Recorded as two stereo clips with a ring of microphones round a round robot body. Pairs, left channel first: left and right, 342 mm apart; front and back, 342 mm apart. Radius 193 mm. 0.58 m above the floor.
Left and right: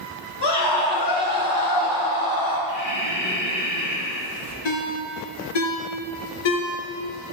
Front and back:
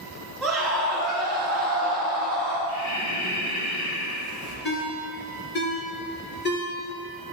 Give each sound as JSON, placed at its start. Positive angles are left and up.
{"t": 0.4, "sound": "a scream", "azimuth_deg": 90, "distance_m": 8.0}
{"t": 2.7, "sound": "breathing", "azimuth_deg": 50, "distance_m": 3.5}
{"t": 4.7, "sound": "a ringtone", "azimuth_deg": 65, "distance_m": 4.0}